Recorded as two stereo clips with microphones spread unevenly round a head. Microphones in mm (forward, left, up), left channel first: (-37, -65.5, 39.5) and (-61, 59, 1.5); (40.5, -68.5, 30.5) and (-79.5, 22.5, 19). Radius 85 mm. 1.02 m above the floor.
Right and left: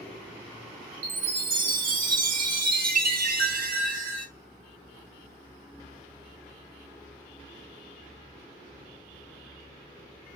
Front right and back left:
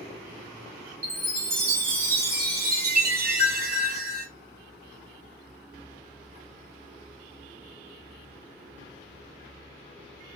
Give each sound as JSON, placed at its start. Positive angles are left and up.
{"t": 1.0, "sound": "a chime", "azimuth_deg": 100, "distance_m": 1.1}